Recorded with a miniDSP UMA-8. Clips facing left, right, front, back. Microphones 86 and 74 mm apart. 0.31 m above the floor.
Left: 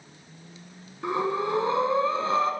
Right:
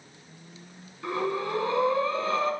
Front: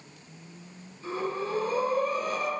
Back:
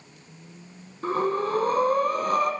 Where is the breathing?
155° left, 1.4 m.